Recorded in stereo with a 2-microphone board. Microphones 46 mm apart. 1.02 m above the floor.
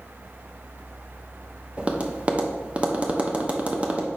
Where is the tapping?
25° right (ahead or behind), 0.8 m.